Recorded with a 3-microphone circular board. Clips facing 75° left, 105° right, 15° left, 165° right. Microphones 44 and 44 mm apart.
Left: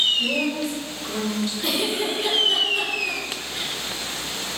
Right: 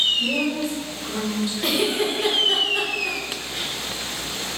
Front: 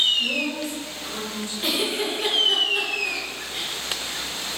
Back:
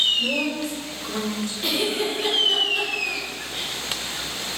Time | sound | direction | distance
0.2 | a woman speaking | 155° left | 3.5 m
1.6 | a giggle | 65° right | 2 m